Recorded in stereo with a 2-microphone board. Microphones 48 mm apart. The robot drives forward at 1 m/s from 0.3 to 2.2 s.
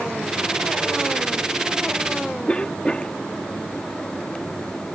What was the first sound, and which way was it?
A cough, 25° left (ahead or behind).